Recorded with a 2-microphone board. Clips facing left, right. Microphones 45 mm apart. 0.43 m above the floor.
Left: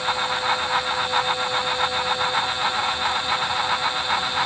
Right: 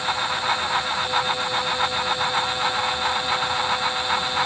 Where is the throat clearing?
I don't hear throat clearing.